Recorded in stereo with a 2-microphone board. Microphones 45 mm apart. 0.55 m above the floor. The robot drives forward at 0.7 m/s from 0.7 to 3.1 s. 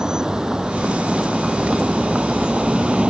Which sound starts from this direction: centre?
A vehicle, at 0.0 s.